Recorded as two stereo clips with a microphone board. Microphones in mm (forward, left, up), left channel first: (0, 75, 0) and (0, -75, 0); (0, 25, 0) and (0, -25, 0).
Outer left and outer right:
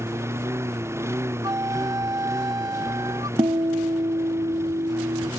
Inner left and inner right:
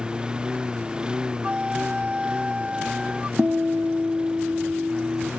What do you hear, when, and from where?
0.0 s a lawn mower: 20° right (ahead or behind)
1.4 s a flute: 25° right (ahead or behind)
3.4 s a guitar: 35° right (ahead or behind)